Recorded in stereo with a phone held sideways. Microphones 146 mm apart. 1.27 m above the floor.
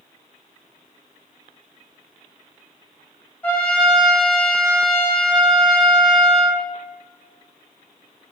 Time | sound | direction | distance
3.4 | a trumpet | 10° left (ahead or behind) | 0.5 m